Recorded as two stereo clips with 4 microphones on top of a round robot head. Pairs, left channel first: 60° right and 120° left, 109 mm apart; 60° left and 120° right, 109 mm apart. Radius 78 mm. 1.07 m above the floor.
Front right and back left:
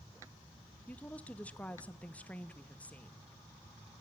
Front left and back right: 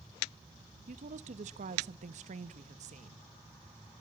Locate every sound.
0.9 s a woman speaking: 140° right, 1.1 m